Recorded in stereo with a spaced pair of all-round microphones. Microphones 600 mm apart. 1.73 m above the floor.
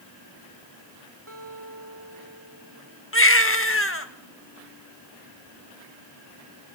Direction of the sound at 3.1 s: 20° left (ahead or behind).